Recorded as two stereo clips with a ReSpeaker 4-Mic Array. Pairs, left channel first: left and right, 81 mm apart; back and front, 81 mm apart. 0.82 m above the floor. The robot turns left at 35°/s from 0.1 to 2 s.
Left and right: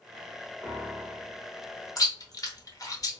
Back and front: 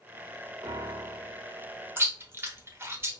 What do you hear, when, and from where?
0.6 s a piano: straight ahead, 1.0 m; by 1.5 s 25° right, 1.0 m
2.0 s chewing: 55° left, 0.7 m